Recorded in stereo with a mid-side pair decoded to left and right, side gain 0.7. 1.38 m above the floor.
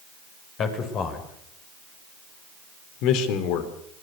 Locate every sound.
0.6 s a man speaking: 40° left, 6.5 m; by 3.7 s 70° left, 4.5 m